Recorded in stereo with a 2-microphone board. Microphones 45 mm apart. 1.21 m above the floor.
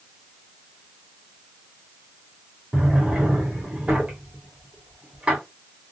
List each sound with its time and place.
2.7 s a drawer: 25° right (ahead or behind), 1.6 m